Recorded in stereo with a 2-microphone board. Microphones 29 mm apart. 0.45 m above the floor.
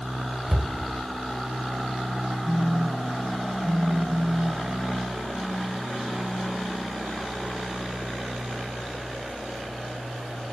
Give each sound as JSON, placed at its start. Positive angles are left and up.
{"t": 0.5, "sound": "a cupboard door", "side_deg": 0, "distance_m": 2.5}
{"t": 2.5, "sound": "a phone buzzing", "side_deg": 25, "distance_m": 0.6}